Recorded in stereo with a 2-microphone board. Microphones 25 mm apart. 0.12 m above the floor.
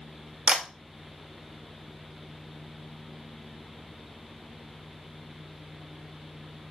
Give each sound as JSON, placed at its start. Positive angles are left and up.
{"t": 0.5, "sound": "a camera shutter", "side_deg": -40, "distance_m": 0.8}